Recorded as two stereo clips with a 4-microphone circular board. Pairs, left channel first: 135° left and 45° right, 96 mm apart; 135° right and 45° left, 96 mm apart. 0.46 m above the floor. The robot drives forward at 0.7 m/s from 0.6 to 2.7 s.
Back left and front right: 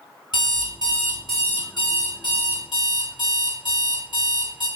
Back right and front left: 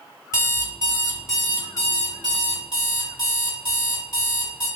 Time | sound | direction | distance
0.3 | an alarm clock | 165° left | 1.1 m